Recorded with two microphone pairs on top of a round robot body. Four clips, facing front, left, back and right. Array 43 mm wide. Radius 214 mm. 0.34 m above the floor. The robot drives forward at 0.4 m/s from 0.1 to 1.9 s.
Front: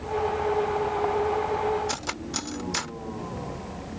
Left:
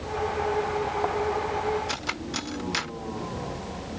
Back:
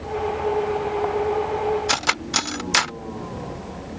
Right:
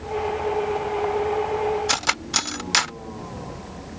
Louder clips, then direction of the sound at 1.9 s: Right 7 dB, back 9 dB; 155° right.